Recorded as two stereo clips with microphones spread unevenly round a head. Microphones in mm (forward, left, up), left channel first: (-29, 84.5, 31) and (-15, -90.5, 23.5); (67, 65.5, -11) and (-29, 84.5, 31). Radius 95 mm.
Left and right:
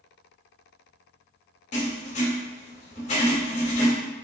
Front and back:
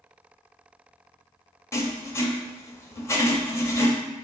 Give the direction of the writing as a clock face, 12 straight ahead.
10 o'clock.